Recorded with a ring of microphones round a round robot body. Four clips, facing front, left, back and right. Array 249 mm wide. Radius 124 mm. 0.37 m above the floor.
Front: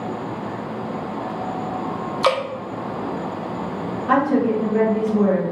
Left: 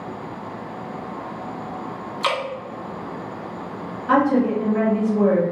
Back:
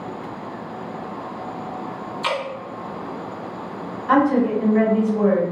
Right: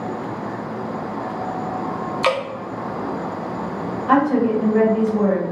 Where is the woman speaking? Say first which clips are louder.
Right 1 dB, back 1 dB; 55° right, 1.8 m.